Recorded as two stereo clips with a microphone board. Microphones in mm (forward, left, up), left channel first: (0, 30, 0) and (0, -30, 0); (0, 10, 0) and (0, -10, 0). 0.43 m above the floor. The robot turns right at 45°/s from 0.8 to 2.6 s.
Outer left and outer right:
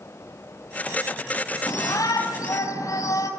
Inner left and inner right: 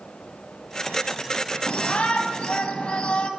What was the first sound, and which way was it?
A shout, 70° left.